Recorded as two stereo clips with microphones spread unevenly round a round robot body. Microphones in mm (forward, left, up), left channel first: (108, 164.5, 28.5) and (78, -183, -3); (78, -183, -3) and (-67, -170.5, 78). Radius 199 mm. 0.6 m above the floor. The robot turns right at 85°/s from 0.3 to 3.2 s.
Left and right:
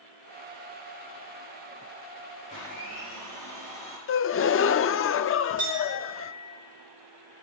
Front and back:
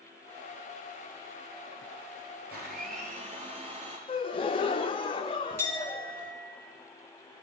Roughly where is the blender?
Behind left.